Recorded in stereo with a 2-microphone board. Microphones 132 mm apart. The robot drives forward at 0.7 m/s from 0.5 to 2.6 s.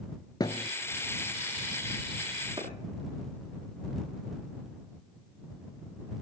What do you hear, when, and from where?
0.4 s a thud: 30° left (ahead or behind), 0.7 m; by 0.7 s 35° left (ahead or behind), 0.6 m
2.6 s a clap: 30° right (ahead or behind), 6 m